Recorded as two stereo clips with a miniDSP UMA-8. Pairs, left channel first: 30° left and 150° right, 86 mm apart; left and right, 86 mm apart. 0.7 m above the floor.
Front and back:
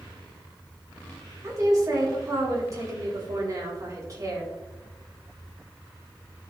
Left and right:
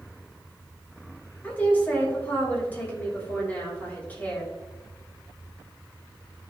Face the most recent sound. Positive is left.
turn(degrees=160)